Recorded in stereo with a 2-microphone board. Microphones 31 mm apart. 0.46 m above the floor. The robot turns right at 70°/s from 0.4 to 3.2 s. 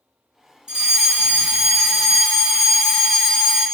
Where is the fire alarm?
25° right (ahead or behind), 1.7 m; by 3.6 s 25° left (ahead or behind), 1.7 m.